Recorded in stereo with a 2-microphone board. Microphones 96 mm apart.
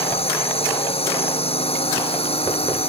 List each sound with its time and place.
0.0 s a drone: 80° left